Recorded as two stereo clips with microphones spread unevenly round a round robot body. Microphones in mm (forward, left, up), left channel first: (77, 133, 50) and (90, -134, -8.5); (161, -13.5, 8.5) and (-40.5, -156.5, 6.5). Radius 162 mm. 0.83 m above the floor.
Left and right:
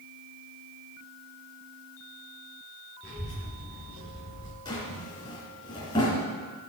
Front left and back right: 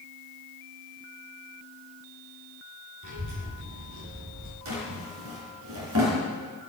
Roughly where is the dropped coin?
No dropped coin in this recording.